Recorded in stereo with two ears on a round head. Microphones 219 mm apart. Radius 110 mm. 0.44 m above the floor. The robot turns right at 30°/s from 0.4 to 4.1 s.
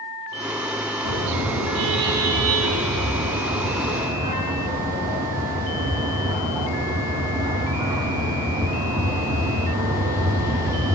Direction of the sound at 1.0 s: 105° right.